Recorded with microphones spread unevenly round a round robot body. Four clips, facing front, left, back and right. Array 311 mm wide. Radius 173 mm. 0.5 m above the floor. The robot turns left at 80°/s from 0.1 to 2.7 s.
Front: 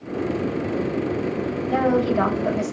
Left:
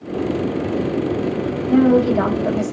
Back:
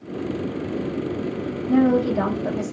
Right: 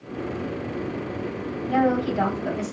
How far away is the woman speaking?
About 1.1 m.